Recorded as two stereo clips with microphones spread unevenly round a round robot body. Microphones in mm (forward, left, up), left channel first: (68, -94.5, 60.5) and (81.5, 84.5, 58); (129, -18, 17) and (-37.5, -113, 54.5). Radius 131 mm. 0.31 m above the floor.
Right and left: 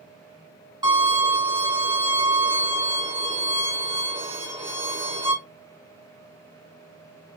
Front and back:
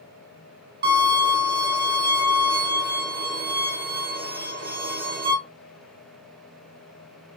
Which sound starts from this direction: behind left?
A violin, at 0.8 s.